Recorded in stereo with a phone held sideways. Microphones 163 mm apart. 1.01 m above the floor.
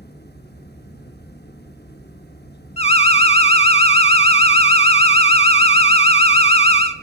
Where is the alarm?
40° left (ahead or behind), 1.0 m.